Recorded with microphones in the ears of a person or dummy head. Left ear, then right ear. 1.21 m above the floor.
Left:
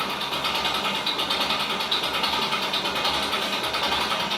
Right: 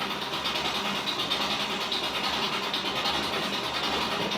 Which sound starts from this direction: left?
An engine running, at 0.0 s.